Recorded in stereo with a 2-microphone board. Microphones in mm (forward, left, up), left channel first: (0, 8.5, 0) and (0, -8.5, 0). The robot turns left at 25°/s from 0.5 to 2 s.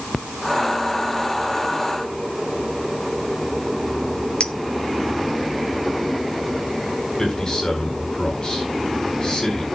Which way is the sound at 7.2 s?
45° left (ahead or behind).